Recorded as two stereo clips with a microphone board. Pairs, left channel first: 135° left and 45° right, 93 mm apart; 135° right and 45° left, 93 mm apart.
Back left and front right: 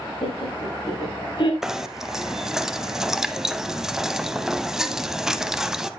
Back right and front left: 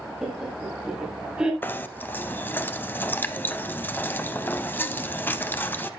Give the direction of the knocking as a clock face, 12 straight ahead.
4 o'clock.